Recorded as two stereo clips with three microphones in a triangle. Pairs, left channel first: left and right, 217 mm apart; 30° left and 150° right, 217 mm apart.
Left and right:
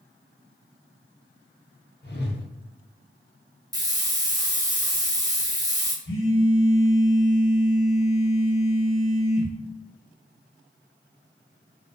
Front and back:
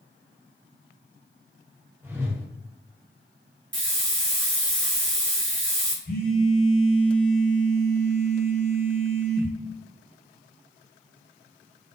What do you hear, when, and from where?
2.0 s a whoosh: 130° left, 0.6 m
3.7 s a hiss: 165° right, 0.5 m
6.0 s a phone buzzing: 70° left, 0.7 m